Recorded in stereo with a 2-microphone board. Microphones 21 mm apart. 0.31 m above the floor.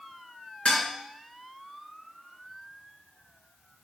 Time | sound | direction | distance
0.7 | dishes clattering | 50° left (ahead or behind) | 3 m